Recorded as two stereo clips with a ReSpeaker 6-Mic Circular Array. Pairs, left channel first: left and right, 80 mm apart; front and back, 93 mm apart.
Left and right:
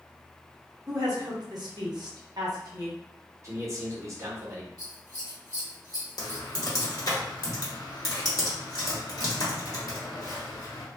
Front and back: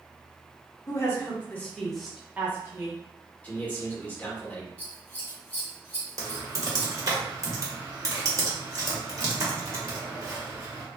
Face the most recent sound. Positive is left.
turn(degrees=125)